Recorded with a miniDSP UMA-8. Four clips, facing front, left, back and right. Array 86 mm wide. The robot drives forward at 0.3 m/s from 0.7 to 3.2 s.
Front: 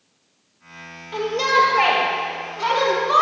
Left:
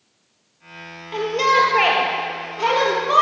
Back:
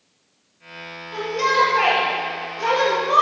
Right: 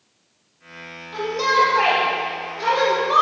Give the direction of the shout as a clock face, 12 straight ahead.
9 o'clock.